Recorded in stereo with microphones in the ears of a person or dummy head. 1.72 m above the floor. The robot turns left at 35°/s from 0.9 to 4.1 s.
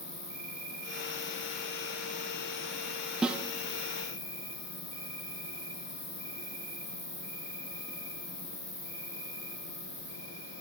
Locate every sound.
0.0 s an insect: 130° left, 3 m; by 10.6 s 15° left, 3 m
3.2 s a snare drum: 5° right (ahead or behind), 0.6 m; by 3.5 s 10° right (ahead or behind), 0.6 m